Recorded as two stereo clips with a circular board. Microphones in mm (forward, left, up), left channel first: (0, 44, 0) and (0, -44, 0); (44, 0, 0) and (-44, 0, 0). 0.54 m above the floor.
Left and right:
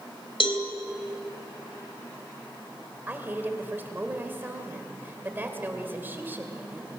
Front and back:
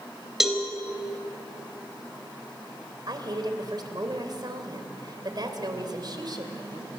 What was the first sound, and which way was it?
A cowbell, 95° left.